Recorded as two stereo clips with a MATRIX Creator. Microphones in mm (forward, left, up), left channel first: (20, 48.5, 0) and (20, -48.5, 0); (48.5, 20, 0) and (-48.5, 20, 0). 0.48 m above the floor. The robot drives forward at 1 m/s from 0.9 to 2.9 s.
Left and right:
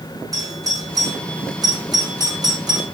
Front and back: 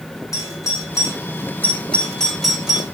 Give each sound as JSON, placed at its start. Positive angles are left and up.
{"t": 0.3, "sound": "a doorbell", "azimuth_deg": -50, "distance_m": 3.0}